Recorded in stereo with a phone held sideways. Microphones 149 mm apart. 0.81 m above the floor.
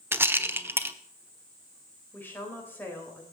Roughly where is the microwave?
No microwave in this recording.